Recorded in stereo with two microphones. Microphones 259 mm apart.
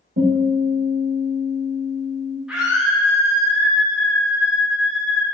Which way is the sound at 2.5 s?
5° right (ahead or behind).